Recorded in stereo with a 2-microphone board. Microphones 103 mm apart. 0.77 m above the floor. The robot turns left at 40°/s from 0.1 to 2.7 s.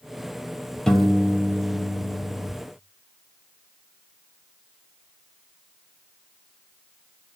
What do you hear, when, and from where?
0.9 s a piano: 5° left, 1.9 m; by 2.5 s 60° right, 1.9 m